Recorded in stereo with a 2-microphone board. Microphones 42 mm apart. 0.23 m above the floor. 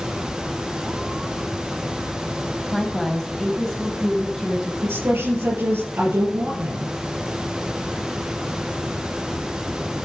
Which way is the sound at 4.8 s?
55° right (ahead or behind).